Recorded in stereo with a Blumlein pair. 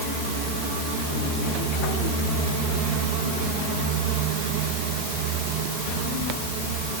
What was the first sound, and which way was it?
Only background noise.